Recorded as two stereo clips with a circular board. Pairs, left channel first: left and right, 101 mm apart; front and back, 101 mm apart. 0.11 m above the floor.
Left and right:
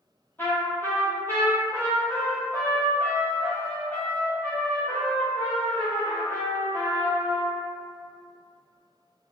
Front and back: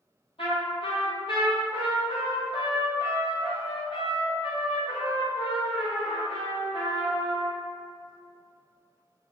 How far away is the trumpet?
About 1.0 m.